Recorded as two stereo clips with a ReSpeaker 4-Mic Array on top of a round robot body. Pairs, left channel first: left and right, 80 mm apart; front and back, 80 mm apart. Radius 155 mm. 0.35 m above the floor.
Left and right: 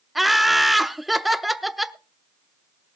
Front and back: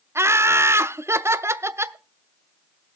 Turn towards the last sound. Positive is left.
turn(degrees=180)